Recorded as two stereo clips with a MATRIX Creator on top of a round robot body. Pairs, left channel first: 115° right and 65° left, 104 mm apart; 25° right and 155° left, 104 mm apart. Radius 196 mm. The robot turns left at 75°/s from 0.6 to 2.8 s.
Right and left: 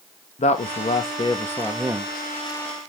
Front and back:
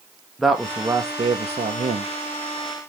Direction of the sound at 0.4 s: 115° right.